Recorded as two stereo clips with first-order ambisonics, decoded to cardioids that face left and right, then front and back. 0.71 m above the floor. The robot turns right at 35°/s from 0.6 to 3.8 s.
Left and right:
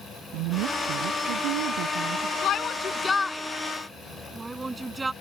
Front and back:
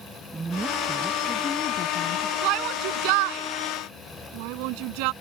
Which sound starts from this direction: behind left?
A shout, at 2.4 s.